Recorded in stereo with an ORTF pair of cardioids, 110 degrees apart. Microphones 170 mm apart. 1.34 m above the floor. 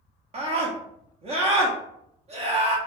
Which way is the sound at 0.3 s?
35° right.